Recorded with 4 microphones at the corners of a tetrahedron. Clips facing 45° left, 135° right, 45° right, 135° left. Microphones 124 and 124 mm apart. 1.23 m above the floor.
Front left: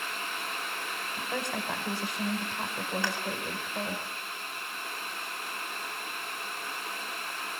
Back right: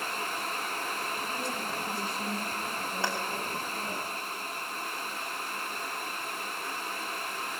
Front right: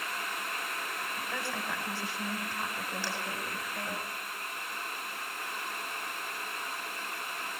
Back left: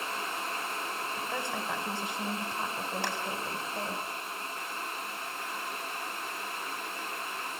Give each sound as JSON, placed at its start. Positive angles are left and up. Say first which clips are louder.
{"t": 1.2, "sound": "a woman speaking", "louder": "front left 1 dB, back left 2 dB", "azimuth_deg": 65, "distance_m": 5.0}
{"t": 3.0, "sound": "a clap", "louder": "back right 4 dB, back left 3 dB", "azimuth_deg": 165, "distance_m": 7.5}